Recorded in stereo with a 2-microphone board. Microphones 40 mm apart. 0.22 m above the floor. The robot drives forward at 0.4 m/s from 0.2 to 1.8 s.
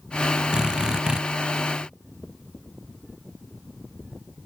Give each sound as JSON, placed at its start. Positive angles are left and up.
{"t": 0.5, "sound": "a drill", "side_deg": -20}